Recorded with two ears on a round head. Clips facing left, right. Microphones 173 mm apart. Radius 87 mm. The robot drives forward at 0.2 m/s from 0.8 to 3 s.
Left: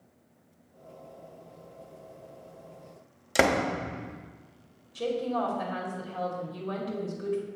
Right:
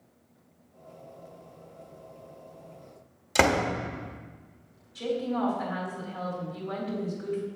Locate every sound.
3.4 s a door slam: 10° left (ahead or behind), 1.0 m
5.0 s a woman speaking: 55° left (ahead or behind), 2 m